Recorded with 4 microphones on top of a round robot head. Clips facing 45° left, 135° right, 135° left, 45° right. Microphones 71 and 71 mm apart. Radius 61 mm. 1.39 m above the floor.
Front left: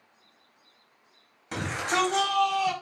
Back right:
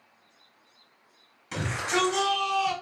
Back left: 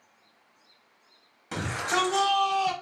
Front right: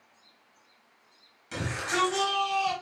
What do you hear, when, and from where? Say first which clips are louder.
1.5 s a shout: front left 1 dB, back left 2 dB; 90° left, 4 m; by 2.7 s 75° left, 4.5 m